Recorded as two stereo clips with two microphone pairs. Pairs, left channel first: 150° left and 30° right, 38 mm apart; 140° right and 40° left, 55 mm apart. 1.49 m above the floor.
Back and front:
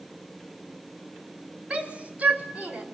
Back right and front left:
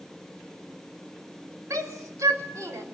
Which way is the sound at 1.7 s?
30° left.